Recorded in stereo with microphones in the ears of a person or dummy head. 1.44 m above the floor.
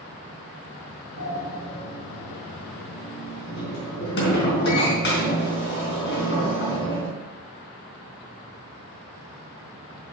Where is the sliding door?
60° left (ahead or behind), 4 m.